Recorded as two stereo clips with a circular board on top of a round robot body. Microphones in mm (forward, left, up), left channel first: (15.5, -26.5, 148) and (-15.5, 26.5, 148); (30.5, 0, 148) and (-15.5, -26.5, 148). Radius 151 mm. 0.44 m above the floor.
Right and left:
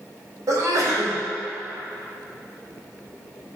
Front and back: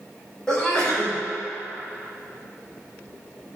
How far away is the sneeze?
About 2.5 m.